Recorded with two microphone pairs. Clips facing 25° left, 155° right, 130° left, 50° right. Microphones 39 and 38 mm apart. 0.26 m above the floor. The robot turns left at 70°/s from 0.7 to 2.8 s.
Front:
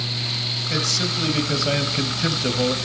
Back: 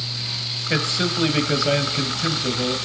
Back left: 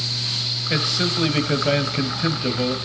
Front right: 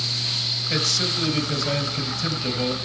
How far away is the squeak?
I don't hear a squeak.